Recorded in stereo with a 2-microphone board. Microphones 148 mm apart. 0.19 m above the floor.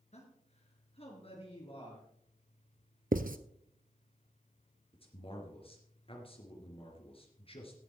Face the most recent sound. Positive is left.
turn(degrees=40)  # may be behind; listen again after turning